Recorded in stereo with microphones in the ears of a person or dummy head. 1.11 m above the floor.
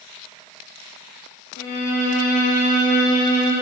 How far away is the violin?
About 0.7 m.